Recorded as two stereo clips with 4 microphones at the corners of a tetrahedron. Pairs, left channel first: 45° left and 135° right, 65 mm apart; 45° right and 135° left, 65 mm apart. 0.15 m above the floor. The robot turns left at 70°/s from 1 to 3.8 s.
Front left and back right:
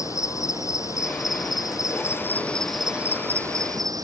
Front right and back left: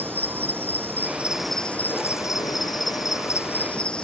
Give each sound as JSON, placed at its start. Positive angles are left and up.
{"t": 0.0, "sound": "an insect", "azimuth_deg": 75}